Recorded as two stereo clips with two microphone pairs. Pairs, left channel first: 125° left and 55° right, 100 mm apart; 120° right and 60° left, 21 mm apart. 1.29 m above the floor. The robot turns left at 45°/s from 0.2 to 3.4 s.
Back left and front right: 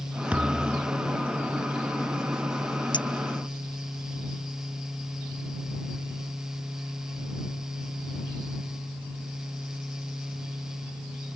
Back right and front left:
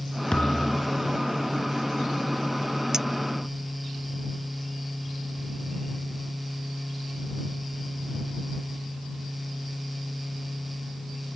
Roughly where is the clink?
Behind left.